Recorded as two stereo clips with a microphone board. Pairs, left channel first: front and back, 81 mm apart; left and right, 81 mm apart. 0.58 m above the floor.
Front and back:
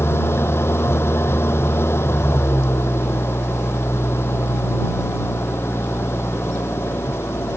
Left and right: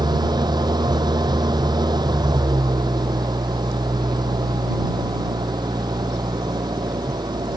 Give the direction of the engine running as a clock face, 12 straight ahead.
2 o'clock.